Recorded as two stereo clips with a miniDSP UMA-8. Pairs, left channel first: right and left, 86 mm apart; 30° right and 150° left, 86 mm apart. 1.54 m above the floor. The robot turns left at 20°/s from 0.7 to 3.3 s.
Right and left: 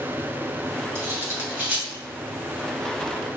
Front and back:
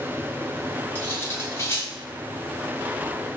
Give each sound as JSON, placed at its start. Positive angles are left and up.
{"t": 0.9, "sound": "cutlery clinking", "azimuth_deg": 35, "distance_m": 1.1}